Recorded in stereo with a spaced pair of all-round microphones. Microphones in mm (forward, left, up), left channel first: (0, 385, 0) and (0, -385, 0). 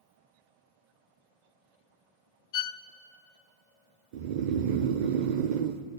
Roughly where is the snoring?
Right.